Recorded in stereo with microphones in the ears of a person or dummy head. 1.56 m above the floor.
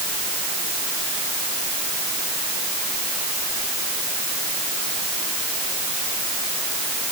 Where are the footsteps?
No footsteps in this recording.